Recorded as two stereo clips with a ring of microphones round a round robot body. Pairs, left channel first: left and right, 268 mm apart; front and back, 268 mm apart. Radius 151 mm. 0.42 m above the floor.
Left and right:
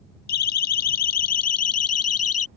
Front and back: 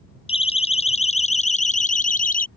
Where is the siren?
70° left; by 2.5 s 60° left.